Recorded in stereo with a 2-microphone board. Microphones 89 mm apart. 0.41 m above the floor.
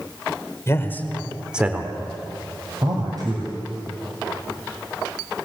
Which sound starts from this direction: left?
A man speaking, at 0.7 s.